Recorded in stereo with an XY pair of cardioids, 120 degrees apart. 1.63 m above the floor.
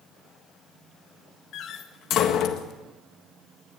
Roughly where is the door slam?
Left.